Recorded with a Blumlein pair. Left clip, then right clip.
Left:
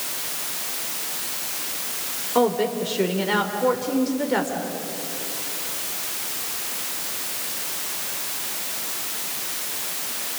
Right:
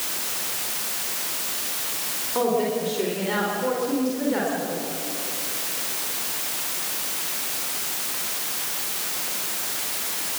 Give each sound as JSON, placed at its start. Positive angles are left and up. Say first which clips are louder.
{"t": 2.4, "sound": "a woman speaking", "louder": "left 2 dB", "azimuth_deg": 20, "distance_m": 3.5}